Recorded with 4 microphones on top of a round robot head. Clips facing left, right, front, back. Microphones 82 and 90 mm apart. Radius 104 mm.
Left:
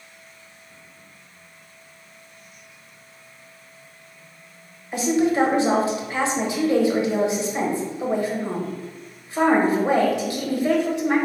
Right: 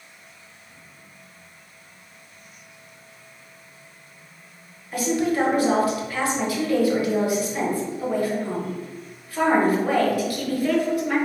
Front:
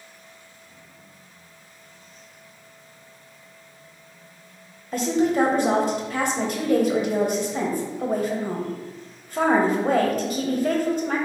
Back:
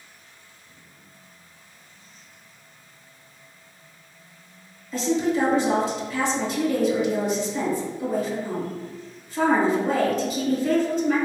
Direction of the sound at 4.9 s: 25° left.